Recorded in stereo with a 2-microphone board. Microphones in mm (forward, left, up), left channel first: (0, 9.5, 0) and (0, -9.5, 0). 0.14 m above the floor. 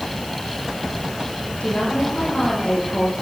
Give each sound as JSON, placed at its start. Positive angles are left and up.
{"t": 1.6, "sound": "a woman speaking", "side_deg": 65, "distance_m": 8.0}